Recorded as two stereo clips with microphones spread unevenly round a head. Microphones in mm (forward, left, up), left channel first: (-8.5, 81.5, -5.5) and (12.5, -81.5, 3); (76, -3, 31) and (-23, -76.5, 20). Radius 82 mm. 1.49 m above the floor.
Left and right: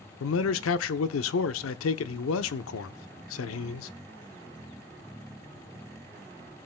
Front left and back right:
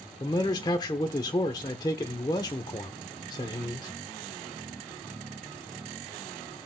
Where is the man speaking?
105° left, 0.8 m.